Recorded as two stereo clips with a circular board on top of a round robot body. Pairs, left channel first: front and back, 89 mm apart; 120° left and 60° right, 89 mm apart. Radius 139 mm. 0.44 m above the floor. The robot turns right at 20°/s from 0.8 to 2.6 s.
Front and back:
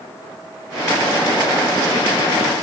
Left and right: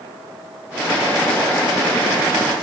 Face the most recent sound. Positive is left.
No sound to turn to.